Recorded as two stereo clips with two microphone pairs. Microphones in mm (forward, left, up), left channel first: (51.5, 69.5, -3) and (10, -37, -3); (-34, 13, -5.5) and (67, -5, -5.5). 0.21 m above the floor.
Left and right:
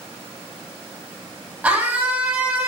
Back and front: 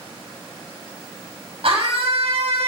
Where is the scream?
30° right, 6.5 m.